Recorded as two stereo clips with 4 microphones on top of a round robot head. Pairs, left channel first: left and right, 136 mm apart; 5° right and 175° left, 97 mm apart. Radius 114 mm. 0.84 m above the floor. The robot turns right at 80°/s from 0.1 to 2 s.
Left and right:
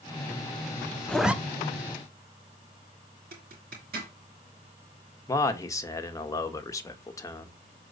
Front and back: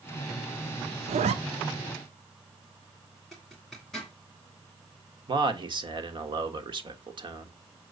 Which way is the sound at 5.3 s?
155° left.